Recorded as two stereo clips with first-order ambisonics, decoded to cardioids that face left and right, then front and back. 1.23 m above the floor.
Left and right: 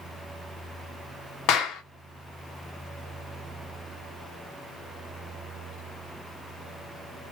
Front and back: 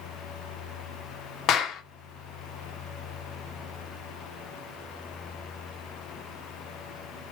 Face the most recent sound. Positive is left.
turn(degrees=50)